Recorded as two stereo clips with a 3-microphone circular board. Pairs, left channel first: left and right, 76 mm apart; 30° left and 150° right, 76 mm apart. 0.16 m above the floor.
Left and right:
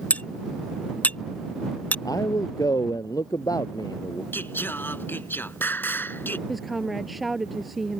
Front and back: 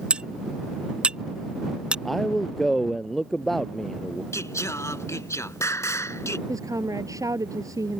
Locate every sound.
0.1 s cutlery clinking: 145° left
2.0 s a man speaking: 115° left
4.3 s singing: 45° left
6.5 s a woman speaking: straight behind